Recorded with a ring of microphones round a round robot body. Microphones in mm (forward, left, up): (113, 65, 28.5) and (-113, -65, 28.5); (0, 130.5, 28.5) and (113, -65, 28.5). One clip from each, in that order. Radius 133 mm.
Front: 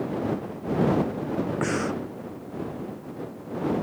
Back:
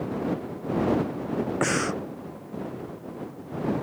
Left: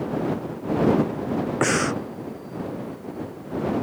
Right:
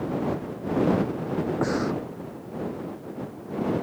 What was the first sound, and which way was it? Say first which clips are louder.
Breathing: back 4 dB, left 7 dB; 150° left.